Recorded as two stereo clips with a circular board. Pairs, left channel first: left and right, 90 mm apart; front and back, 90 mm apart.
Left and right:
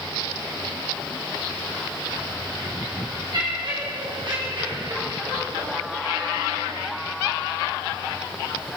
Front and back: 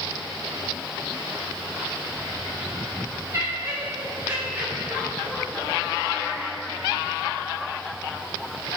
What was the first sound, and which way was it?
Laughter, 125° right.